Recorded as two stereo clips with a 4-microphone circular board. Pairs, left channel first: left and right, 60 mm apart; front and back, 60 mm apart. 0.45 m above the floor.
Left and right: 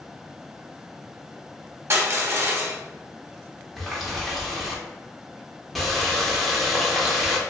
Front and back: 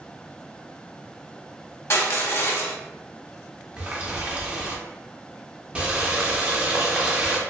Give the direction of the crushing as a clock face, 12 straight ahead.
2 o'clock.